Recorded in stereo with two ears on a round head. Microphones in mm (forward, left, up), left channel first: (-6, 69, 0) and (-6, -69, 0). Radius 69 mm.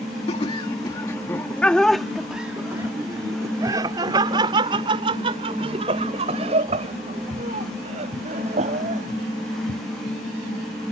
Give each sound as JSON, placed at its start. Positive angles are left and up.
{"t": 0.3, "sound": "laughter", "side_deg": 40}